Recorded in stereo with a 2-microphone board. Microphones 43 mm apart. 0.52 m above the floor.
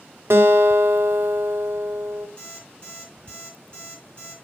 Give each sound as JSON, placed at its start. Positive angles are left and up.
{"t": 0.3, "sound": "a guitar", "side_deg": -70, "distance_m": 0.7}
{"t": 2.4, "sound": "an alarm clock", "side_deg": 20, "distance_m": 6.0}